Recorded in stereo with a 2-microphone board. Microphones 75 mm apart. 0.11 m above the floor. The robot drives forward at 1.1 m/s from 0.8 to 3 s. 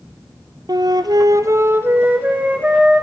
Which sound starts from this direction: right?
A flute, at 0.7 s.